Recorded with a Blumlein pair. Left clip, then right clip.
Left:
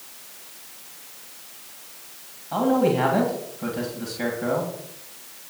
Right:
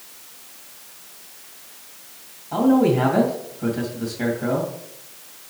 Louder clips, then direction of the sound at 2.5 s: Right 2 dB; 5° right.